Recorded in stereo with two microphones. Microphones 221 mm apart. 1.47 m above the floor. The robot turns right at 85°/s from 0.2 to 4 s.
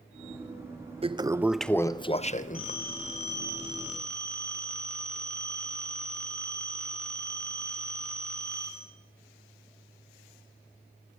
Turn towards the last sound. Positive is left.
turn(degrees=5)